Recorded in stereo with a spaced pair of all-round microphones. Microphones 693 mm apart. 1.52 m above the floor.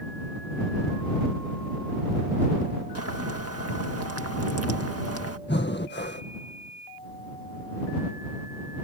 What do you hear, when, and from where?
3.0 s boiling: 20° right (ahead or behind)
5.5 s breathing: 15° left (ahead or behind)